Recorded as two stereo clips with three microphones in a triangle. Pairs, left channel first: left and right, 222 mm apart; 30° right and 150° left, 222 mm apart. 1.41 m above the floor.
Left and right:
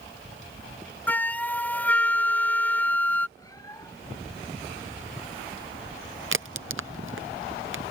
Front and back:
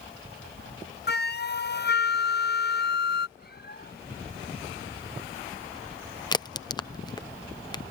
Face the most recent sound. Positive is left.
turn(degrees=-100)